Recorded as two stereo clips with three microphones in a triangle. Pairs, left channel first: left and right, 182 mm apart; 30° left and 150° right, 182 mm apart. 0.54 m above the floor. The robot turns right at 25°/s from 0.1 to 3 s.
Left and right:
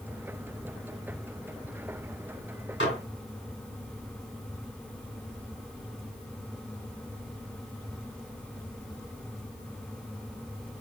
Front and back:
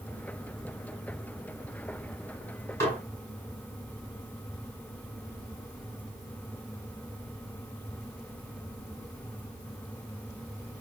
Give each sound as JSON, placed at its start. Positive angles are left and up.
{"t": 2.8, "sound": "dishes clattering", "azimuth_deg": 105, "distance_m": 2.5}